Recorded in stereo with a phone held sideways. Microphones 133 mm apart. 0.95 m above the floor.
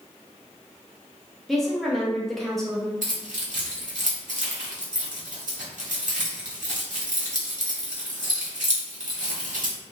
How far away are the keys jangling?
About 1.6 m.